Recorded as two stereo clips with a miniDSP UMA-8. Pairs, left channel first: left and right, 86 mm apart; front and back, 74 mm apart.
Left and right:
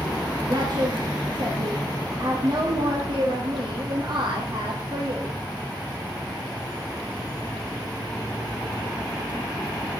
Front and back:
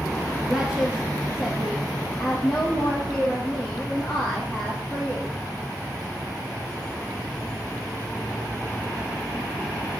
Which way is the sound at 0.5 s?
100° right.